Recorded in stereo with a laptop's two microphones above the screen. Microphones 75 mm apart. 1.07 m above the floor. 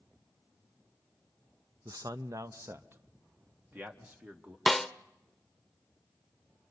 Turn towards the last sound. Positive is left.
turn(degrees=0)  # may be behind; listen again after turning